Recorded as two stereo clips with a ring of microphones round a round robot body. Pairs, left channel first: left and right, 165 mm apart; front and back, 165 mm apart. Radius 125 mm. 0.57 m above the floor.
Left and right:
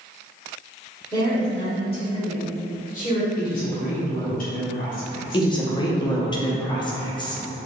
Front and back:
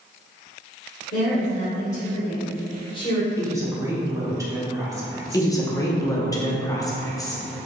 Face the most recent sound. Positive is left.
turn(degrees=50)